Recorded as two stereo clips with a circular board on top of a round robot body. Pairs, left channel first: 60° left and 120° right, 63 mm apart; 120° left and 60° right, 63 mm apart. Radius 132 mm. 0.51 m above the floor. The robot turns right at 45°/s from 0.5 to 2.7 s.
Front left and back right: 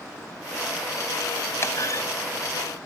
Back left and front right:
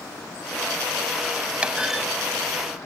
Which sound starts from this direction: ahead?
A clunk, at 1.6 s.